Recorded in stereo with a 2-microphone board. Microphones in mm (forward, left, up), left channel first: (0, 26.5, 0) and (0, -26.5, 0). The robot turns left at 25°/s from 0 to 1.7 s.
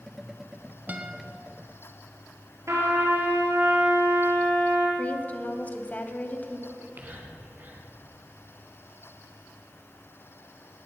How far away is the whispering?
About 3 m.